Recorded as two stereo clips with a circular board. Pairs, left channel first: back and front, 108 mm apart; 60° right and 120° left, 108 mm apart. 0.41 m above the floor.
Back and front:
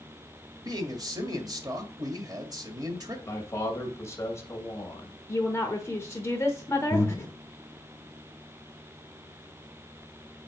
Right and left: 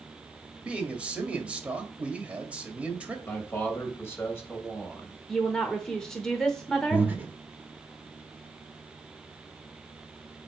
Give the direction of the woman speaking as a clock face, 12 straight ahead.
5 o'clock.